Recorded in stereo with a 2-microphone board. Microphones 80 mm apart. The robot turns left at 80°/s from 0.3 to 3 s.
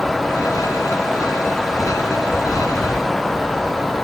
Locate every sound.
Only background noise.